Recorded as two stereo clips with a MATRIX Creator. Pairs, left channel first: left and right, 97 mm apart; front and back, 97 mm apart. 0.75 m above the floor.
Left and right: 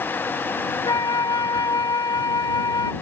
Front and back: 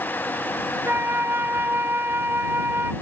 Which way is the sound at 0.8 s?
120° left.